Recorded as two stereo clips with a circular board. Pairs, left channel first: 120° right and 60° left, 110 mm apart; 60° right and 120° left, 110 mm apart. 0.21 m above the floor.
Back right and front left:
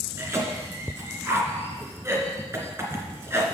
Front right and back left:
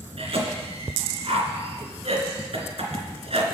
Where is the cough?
125° left, 2.5 m.